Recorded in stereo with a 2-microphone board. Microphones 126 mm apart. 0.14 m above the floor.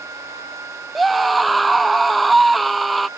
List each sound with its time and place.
0.9 s a scream: centre (ahead or behind)